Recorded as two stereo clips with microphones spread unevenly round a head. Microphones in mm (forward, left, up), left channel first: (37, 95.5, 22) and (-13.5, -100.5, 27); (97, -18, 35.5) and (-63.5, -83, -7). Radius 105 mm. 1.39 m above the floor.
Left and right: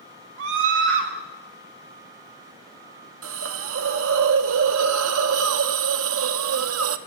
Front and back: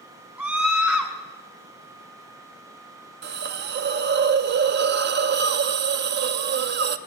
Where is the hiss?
135° right, 0.7 m.